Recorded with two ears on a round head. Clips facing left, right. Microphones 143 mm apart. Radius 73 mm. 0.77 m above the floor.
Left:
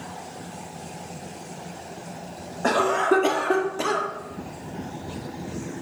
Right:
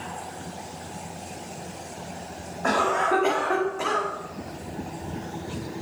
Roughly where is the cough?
Left.